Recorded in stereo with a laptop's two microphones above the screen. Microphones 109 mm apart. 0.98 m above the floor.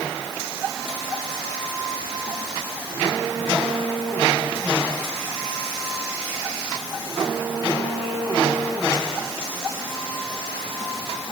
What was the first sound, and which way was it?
Only background noise.